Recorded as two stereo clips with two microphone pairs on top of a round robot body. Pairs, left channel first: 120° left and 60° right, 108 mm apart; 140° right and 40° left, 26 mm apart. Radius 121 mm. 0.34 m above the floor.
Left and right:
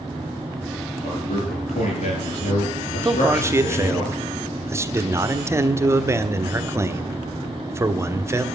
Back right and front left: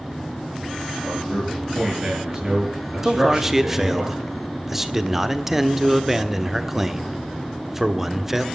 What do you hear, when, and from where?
1.0 s a man speaking: 110° left, 8.5 m; by 4.0 s 100° left, 8 m
3.0 s a man speaking: 20° right, 1.7 m